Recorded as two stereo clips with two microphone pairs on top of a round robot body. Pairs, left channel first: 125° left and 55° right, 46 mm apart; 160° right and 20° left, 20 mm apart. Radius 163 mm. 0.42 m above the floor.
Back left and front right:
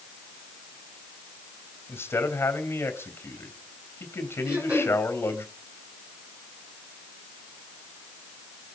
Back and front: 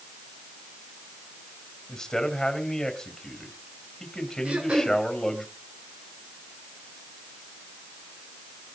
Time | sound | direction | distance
1.9 | a man speaking | 130° left | 3.5 m
4.5 | throat clearing | 10° left | 5.5 m